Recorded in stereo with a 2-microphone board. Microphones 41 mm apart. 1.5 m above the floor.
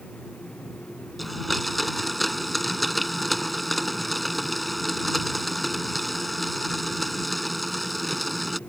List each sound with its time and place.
1.2 s a blender: centre (ahead or behind)